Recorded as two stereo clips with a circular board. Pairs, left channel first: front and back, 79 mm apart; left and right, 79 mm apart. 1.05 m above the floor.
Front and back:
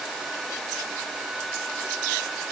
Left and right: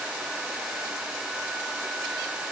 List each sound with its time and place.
Only background noise.